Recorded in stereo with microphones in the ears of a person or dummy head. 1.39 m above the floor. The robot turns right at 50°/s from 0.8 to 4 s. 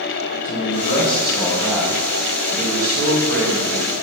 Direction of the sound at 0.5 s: 135° left.